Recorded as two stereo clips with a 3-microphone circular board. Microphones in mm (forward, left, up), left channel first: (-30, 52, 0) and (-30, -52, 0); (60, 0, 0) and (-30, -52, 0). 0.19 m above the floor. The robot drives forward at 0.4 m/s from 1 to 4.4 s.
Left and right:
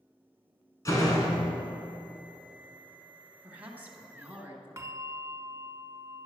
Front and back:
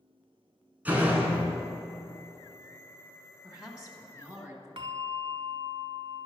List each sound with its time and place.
0.8 s a door slam: 140° left, 1.4 m; by 1.7 s 145° left, 1.5 m
3.4 s a woman speaking: 75° right, 1.2 m; by 4.7 s 125° right, 1.2 m
4.8 s a bell: 145° right, 0.6 m